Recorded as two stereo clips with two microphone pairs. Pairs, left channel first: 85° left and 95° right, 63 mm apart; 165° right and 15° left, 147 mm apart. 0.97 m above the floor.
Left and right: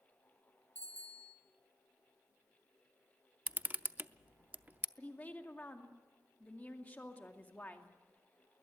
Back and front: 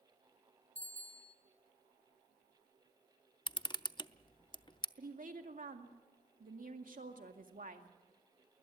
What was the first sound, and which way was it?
A bicycle bell, 150° left.